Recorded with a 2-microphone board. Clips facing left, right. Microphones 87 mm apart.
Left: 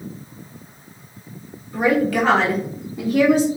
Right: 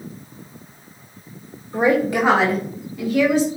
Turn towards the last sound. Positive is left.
turn(degrees=45)  # may be behind; listen again after turning